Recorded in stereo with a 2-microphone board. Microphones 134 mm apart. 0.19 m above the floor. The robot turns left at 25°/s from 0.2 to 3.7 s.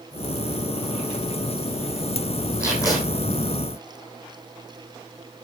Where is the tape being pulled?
20° left (ahead or behind), 3.5 m; by 3.0 s 30° left (ahead or behind), 3.5 m.